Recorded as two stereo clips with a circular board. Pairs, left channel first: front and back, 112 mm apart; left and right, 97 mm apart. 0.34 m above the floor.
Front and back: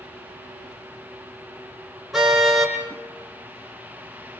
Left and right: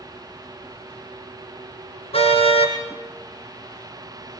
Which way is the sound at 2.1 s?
90° left.